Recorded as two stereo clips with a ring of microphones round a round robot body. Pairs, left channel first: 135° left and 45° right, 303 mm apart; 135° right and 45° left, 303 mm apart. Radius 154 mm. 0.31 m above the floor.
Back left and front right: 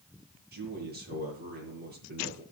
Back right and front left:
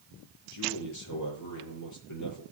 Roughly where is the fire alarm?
No fire alarm in this recording.